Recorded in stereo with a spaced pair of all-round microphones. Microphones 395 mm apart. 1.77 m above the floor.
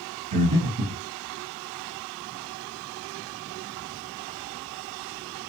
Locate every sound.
0.3 s breathing: 55° right (ahead or behind), 1.0 m